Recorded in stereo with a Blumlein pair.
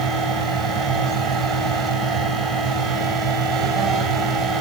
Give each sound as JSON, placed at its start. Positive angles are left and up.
{"t": 0.0, "sound": "a fan", "azimuth_deg": -25, "distance_m": 8.5}